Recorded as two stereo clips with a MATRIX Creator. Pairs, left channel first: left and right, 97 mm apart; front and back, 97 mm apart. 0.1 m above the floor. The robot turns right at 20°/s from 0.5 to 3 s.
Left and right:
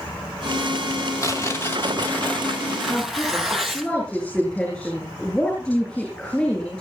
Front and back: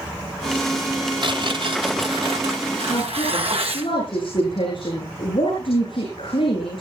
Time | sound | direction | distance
1.2 | tearing paper | 145° left | 3 m
2.9 | a woman speaking | 15° left | 9.5 m